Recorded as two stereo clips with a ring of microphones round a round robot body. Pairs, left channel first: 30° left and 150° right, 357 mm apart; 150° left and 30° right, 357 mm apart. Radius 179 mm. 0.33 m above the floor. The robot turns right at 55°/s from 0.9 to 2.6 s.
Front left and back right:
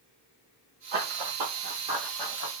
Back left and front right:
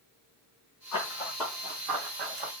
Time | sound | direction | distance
0.9 | running footsteps | 165° right | 1.5 m